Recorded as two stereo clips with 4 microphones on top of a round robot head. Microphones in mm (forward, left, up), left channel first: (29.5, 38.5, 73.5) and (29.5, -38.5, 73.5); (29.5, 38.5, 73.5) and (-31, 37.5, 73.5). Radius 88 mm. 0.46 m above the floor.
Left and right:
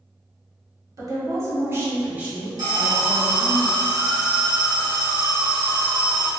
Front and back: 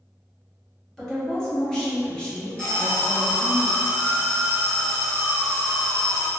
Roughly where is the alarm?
Right.